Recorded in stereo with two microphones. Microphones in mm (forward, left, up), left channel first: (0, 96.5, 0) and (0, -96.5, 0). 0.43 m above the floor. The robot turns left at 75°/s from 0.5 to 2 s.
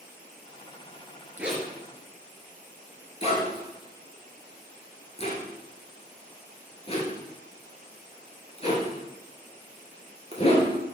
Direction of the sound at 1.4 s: 10° right (ahead or behind).